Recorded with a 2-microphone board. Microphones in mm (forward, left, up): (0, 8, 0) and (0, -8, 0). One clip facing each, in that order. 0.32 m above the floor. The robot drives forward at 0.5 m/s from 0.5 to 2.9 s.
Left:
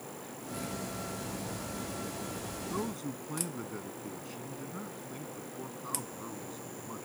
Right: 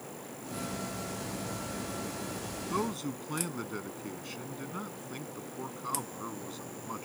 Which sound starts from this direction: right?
A man speaking, at 2.7 s.